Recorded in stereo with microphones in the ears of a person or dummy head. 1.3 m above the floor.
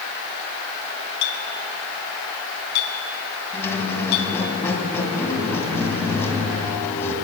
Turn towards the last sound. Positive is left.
turn(degrees=15)  # may be behind; listen again after turning